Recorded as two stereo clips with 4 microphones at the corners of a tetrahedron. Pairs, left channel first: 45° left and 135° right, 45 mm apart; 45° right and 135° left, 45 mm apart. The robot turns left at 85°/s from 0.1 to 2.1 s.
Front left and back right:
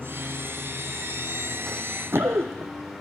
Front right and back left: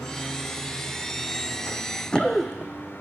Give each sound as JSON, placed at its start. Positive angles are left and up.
{"t": 1.7, "sound": "running footsteps", "azimuth_deg": -35, "distance_m": 0.5}